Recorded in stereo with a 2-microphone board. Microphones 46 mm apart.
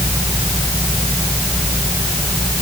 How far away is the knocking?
No knocking in this recording.